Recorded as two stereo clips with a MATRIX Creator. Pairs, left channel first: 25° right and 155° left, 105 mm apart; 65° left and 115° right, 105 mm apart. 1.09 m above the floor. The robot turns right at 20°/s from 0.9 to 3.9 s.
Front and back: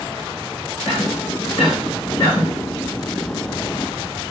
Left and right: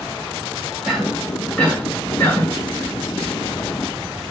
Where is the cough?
30° right, 2.0 m; by 2.5 s straight ahead, 2.0 m.